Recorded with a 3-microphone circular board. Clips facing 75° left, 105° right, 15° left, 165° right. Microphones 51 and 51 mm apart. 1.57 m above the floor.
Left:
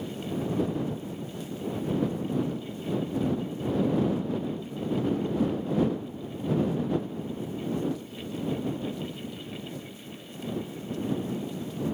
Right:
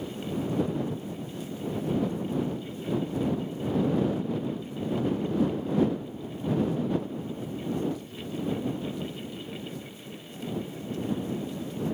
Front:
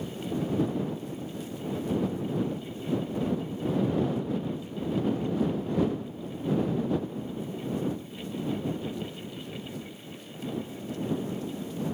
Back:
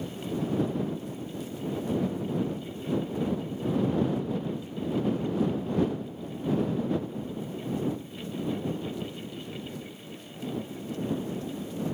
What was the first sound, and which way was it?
Only background noise.